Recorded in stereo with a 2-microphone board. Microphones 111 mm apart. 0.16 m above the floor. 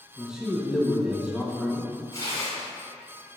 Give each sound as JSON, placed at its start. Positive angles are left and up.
{"t": 0.2, "sound": "a man speaking", "side_deg": -5, "distance_m": 1.4}
{"t": 2.1, "sound": "tearing paper", "side_deg": 30, "distance_m": 2.0}